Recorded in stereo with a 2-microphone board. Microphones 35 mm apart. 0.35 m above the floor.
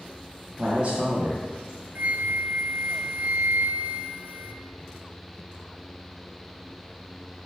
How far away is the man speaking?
About 1.8 m.